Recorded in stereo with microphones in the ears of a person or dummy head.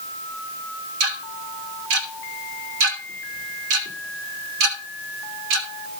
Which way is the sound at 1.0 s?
65° right (ahead or behind).